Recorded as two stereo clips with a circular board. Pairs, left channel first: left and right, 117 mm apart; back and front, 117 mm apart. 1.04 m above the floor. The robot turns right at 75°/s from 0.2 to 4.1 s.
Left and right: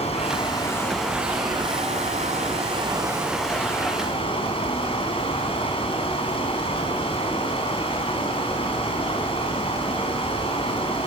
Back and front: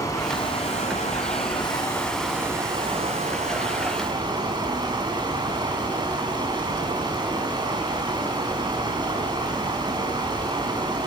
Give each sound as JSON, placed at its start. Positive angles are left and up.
{"t": 0.0, "sound": "running water", "azimuth_deg": 120, "distance_m": 5.5}